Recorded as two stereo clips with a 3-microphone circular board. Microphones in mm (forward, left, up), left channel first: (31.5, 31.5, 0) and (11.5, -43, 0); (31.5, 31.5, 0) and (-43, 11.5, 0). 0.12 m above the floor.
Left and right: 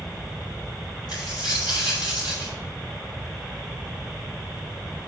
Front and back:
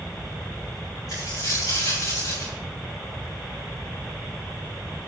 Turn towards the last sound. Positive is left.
turn(degrees=55)